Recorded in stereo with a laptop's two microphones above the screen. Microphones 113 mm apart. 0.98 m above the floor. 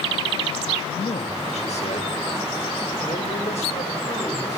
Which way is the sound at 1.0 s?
60° left (ahead or behind).